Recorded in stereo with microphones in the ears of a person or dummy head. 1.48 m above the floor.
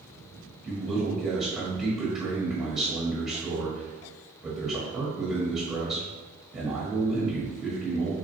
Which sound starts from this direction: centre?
A man speaking, at 0.6 s.